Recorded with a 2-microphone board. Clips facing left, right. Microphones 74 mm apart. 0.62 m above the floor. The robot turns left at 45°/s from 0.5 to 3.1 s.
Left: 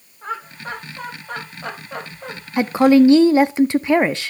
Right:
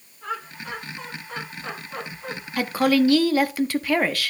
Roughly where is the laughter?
Left.